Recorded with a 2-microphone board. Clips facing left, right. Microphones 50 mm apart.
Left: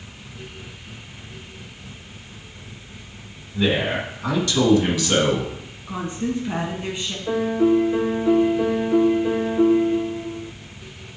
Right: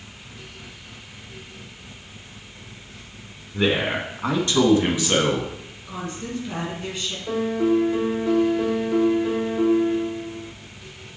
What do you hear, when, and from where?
3.5 s a man speaking: 40° right (ahead or behind), 2 m; by 5.5 s 15° right (ahead or behind), 1.5 m
5.9 s a woman speaking: 20° left (ahead or behind), 2 m
7.3 s a piano: 10° left (ahead or behind), 1.4 m